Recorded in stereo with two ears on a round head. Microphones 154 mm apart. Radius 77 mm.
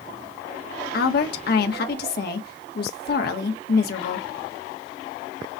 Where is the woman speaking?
60° left (ahead or behind), 1.2 m.